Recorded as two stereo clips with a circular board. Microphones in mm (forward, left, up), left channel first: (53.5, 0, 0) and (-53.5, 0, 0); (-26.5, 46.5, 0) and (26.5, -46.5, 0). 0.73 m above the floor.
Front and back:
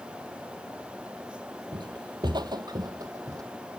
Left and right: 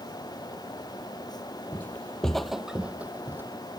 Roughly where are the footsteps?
Behind.